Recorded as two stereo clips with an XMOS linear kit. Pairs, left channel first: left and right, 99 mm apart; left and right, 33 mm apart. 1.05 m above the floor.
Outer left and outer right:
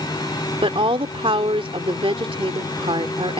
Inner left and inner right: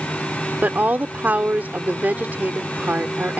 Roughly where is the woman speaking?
Right.